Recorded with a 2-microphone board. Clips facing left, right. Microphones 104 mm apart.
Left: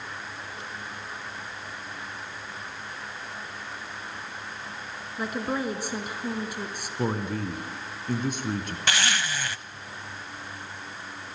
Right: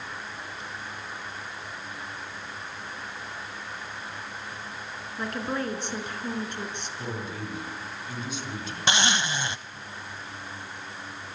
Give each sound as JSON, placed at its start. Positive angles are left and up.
{"t": 5.2, "sound": "a woman speaking", "side_deg": 10, "distance_m": 2.5}
{"t": 7.0, "sound": "a man speaking", "side_deg": 50, "distance_m": 3.0}
{"t": 8.9, "sound": "a zipper", "side_deg": -20, "distance_m": 0.6}